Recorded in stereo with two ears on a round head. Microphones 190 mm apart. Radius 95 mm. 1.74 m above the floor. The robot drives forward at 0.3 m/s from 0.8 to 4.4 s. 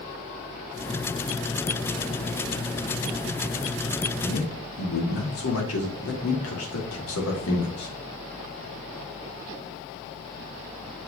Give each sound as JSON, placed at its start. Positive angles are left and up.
{"t": 4.2, "sound": "a man speaking", "side_deg": 70, "distance_m": 2.5}